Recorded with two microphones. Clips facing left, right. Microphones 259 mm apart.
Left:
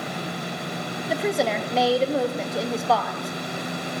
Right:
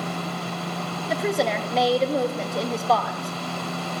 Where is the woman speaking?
Centre (ahead or behind), 0.7 m.